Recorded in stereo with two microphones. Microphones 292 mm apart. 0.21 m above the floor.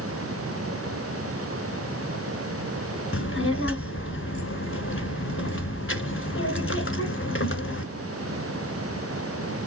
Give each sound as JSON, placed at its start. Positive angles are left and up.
{"t": 3.1, "sound": "a child speaking", "side_deg": 50, "distance_m": 1.3}